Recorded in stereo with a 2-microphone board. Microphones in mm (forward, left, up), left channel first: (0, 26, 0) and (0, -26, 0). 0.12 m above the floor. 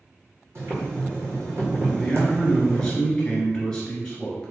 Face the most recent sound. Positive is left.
turn(degrees=15)  # may be behind; listen again after turning